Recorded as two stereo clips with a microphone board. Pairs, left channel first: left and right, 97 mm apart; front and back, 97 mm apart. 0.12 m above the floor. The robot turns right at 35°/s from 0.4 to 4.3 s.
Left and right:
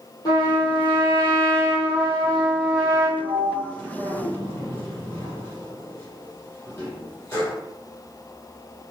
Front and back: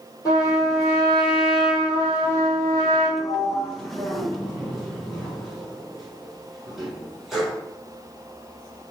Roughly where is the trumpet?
Ahead left.